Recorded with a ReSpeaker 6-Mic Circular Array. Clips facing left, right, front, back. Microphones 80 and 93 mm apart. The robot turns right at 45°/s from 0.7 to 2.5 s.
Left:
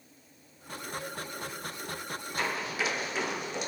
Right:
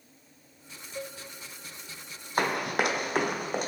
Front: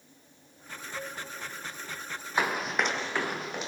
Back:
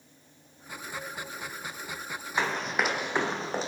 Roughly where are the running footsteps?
Right.